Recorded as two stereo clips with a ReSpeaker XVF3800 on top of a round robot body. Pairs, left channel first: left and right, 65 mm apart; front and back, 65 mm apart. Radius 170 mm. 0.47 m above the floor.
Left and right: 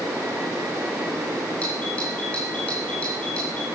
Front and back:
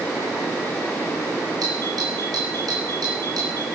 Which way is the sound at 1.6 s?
160° left.